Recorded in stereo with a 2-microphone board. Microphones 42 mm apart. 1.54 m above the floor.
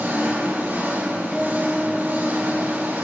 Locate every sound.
0.0 s an engine running: 60° right (ahead or behind), 3 m
1.3 s a guitar: 5° right (ahead or behind), 1.3 m